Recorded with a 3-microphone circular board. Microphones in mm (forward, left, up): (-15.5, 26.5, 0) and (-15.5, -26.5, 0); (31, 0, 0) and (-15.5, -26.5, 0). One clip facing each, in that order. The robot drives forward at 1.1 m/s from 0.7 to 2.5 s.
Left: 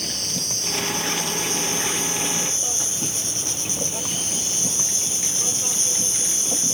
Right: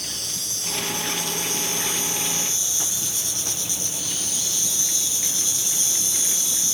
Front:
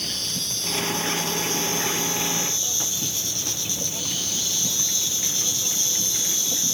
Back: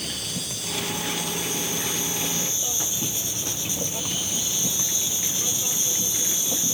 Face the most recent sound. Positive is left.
turn(degrees=140)